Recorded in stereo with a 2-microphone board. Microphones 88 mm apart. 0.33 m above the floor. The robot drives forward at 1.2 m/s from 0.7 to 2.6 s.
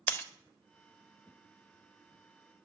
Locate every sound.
0.1 s breaking glass: 25° left (ahead or behind), 0.5 m